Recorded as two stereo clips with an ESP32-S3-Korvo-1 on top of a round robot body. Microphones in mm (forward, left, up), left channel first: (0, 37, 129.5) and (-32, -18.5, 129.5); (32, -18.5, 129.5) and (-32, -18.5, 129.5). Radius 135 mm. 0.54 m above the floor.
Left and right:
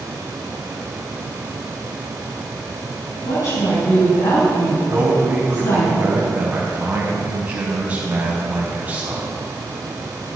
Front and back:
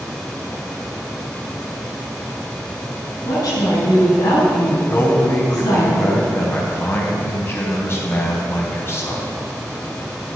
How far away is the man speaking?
About 4 m.